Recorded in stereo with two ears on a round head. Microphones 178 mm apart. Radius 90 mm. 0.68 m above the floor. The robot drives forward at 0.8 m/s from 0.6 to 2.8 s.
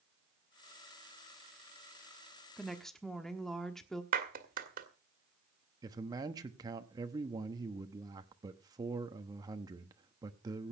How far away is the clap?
About 1.8 m.